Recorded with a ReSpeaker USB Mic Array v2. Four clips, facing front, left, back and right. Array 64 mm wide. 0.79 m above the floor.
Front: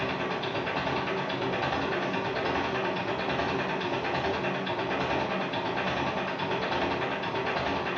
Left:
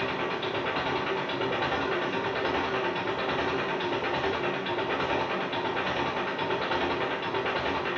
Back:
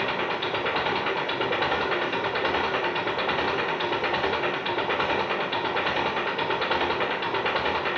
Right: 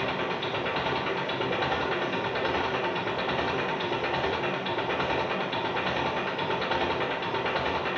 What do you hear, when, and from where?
0.0 s an engine running: 175° right, 2.5 m